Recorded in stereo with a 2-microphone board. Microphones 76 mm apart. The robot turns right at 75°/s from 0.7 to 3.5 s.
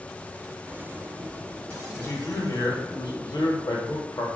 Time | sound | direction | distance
1.9 | a man speaking | 15° left | 0.7 m